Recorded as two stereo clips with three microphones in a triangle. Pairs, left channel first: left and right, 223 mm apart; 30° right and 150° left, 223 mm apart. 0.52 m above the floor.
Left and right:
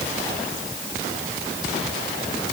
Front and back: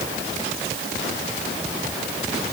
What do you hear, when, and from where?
Only background noise.